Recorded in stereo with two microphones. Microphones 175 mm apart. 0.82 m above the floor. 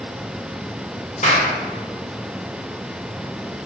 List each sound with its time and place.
1.2 s a clap: 45° left (ahead or behind), 2.5 m